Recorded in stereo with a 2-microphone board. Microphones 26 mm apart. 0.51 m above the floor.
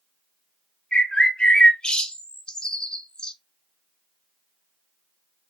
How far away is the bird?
About 0.5 m.